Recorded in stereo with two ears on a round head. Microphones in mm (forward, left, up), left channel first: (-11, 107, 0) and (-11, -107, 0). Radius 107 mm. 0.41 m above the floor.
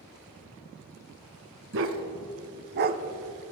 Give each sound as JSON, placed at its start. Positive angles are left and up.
{"t": 1.7, "sound": "a dog barking", "side_deg": -50, "distance_m": 0.9}